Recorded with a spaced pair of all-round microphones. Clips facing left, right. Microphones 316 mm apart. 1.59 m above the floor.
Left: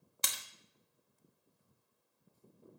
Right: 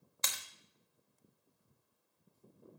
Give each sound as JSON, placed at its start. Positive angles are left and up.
{"t": 0.2, "sound": "breaking glass", "side_deg": 40, "distance_m": 1.1}